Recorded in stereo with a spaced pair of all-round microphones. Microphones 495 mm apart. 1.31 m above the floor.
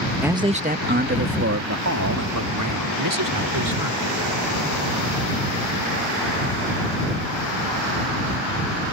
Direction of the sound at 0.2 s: 5° right (ahead or behind).